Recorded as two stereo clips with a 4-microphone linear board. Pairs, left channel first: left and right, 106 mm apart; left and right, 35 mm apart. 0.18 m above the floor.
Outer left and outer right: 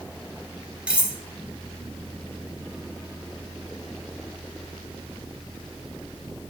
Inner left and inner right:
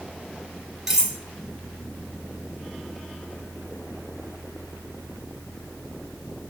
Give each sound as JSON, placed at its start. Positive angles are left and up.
{"t": 0.9, "sound": "cutlery clinking", "side_deg": -10, "distance_m": 1.4}